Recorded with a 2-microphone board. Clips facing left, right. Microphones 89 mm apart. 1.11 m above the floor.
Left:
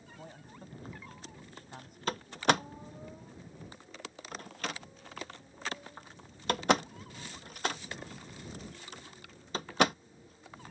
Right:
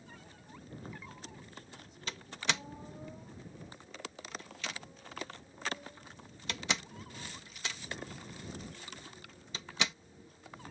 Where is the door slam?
50° left (ahead or behind).